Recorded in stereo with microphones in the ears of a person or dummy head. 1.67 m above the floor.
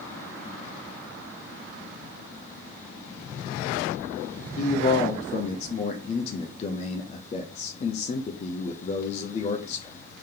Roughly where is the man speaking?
Left.